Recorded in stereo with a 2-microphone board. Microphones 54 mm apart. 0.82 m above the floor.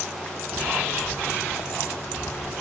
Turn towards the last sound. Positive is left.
turn(degrees=45)  # may be behind; listen again after turning